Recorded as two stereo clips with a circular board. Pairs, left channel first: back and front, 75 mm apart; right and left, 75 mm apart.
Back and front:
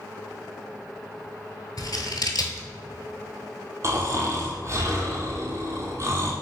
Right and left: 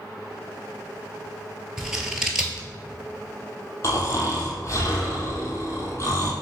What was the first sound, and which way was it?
Scissors, 170° left.